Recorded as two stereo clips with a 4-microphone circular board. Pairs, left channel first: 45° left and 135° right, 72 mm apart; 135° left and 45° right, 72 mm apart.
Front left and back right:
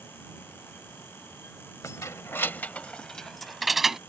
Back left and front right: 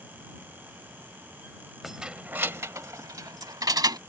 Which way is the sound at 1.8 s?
40° left.